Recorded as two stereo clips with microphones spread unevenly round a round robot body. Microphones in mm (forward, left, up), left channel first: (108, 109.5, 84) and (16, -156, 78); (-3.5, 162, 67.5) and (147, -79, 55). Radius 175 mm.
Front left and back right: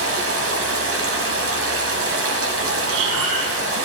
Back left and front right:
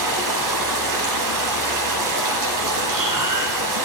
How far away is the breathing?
About 0.7 m.